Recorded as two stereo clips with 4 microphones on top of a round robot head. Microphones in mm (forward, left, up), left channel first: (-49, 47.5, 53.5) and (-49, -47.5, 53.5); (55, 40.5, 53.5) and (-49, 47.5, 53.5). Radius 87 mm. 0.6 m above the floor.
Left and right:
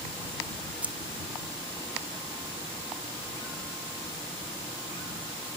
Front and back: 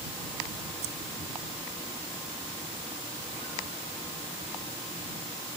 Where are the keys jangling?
165° right.